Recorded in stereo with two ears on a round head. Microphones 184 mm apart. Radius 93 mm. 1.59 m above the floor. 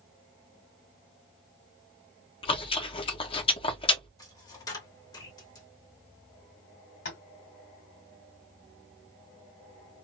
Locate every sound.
2.4 s chewing: 25° left (ahead or behind), 0.6 m
4.2 s a dropped coin: 20° left (ahead or behind), 1.2 m
7.0 s tapping: 50° left (ahead or behind), 2 m